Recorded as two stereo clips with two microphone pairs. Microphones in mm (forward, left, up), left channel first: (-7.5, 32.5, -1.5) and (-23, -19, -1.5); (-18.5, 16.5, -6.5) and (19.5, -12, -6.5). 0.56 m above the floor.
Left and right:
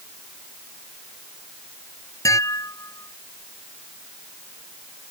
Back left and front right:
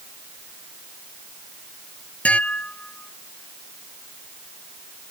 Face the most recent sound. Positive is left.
turn(degrees=80)